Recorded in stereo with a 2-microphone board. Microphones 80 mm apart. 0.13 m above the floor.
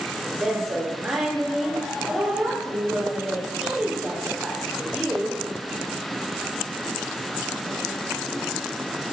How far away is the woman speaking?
About 4.5 m.